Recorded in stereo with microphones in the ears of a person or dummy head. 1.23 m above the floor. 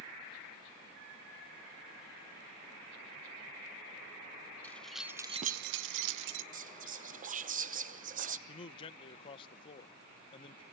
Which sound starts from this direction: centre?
Keys jangling, at 4.6 s.